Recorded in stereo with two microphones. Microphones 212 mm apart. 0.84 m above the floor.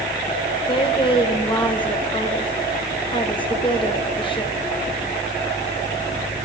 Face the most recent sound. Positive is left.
turn(degrees=25)  # may be behind; listen again after turning